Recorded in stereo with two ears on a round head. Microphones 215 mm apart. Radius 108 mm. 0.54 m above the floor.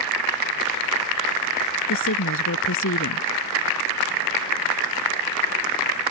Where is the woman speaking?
60° left (ahead or behind).